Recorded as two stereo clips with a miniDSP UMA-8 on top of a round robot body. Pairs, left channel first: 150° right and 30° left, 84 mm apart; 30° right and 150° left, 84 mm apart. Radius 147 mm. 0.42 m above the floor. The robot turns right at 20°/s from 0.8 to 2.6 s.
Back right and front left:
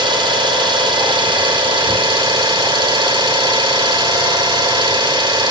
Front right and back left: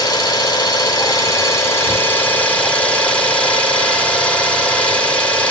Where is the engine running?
10° left, 1.9 m; by 5.5 s 45° left, 1.9 m.